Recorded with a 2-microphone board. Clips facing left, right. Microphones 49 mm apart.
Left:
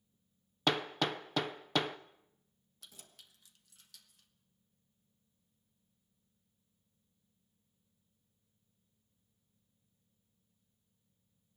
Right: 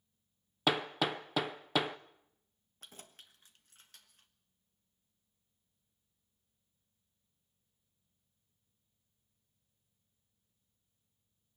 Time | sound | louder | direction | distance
0.7 | hammering | right 1 dB | 5° right (ahead or behind) | 0.6 m
2.8 | keys jangling | right 4 dB | 40° right (ahead or behind) | 1.3 m